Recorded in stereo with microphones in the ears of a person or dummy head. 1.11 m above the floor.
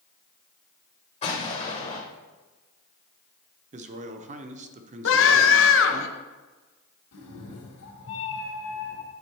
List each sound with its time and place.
1.2 s an explosion: 35° left (ahead or behind), 1.6 m
3.7 s a man speaking: 35° right (ahead or behind), 0.5 m
5.0 s a scream: 65° left (ahead or behind), 0.8 m
7.1 s a cat meowing: 80° left, 2 m